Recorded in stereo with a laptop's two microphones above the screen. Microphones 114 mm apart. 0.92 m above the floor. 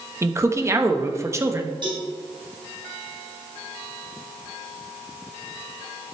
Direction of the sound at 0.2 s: 25° right (ahead or behind).